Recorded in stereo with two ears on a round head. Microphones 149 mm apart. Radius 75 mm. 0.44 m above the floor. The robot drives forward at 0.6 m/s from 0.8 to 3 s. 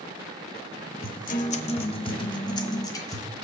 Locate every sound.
1.0 s a guitar: 55° left (ahead or behind), 0.7 m; by 3.3 s 20° left (ahead or behind), 1.6 m